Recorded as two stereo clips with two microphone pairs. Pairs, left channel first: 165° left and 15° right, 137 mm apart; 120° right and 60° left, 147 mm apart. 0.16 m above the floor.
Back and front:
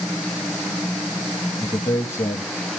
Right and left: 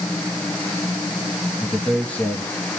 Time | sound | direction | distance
1.6 | a man speaking | 175° left | 1.0 m